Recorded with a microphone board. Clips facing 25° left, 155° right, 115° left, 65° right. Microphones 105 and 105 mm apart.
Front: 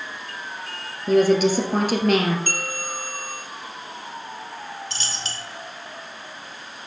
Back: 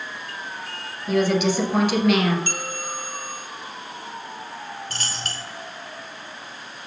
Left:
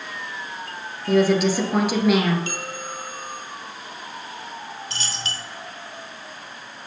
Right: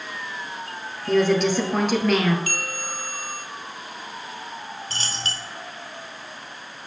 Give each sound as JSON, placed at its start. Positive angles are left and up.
{"t": 1.1, "sound": "a woman speaking", "azimuth_deg": 35, "distance_m": 1.7}
{"t": 2.5, "sound": "a bell", "azimuth_deg": 60, "distance_m": 1.2}
{"t": 4.9, "sound": "a dropped coin", "azimuth_deg": -120, "distance_m": 1.1}